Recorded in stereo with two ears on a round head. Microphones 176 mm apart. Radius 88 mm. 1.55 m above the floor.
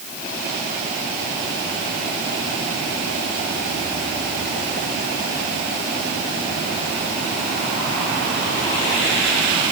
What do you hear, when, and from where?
Only background noise.